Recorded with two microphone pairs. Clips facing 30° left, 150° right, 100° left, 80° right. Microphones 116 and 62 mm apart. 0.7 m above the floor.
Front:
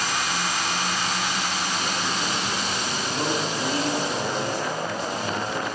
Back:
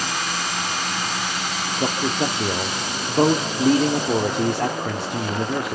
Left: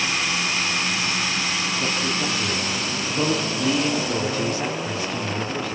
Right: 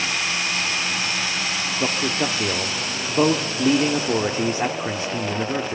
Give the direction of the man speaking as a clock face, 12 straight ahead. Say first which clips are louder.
Back 5 dB, right 5 dB; 4 o'clock.